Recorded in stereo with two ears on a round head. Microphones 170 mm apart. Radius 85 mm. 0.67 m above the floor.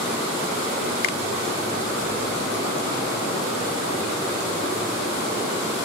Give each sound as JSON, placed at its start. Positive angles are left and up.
{"t": 1.0, "sound": "a finger snap", "side_deg": 55}